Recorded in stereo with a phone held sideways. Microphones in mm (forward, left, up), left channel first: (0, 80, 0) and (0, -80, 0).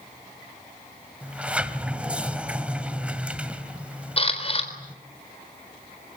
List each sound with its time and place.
1.2 s a sliding door: 10° right (ahead or behind), 2.0 m
4.2 s a camera shutter: 40° left (ahead or behind), 4 m